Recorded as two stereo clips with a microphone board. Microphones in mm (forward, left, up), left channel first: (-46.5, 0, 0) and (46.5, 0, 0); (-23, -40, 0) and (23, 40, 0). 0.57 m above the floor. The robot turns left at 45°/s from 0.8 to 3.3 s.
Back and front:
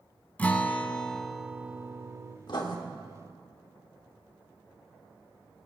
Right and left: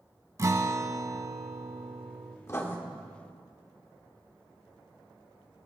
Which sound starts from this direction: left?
A guitar, at 0.4 s.